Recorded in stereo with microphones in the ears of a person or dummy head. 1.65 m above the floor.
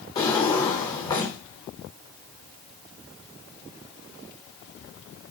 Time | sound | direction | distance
0.1 | a drawer | 10° left (ahead or behind) | 1.0 m